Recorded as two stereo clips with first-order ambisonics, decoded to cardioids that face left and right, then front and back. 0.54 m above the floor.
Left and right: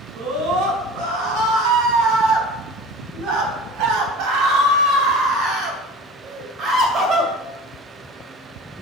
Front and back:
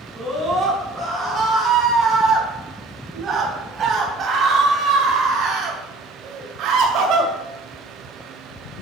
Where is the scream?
95° right, 4.5 m; by 7.3 s 150° right, 2 m.